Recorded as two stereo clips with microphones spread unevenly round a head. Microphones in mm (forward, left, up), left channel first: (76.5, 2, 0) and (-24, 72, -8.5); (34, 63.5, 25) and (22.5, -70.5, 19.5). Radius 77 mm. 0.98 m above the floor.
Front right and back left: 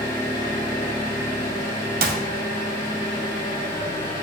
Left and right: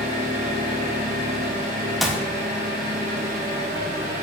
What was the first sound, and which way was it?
An engine running, 85° right.